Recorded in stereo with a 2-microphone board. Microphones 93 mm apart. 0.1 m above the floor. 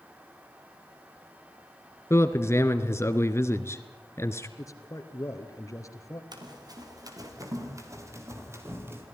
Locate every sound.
2.1 s a man speaking: 30° left (ahead or behind), 1.2 m
4.6 s a man speaking: 35° left (ahead or behind), 2.5 m
6.3 s running footsteps: 45° right (ahead or behind), 5 m; by 9.0 s 25° right (ahead or behind), 6 m